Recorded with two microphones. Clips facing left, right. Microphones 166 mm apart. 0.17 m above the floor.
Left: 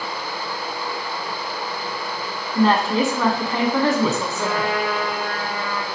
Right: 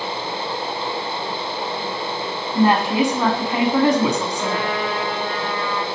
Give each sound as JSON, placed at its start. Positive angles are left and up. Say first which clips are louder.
{"t": 2.5, "sound": "a woman speaking", "louder": "right 1 dB", "side_deg": -15, "distance_m": 1.7}
{"t": 4.3, "sound": "a trumpet", "louder": "even", "side_deg": 45, "distance_m": 4.5}